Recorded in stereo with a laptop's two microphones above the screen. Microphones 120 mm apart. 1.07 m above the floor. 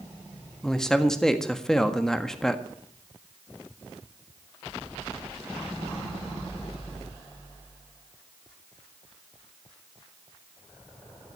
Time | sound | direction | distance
0.6 | a man speaking | 5° left (ahead or behind) | 1.6 m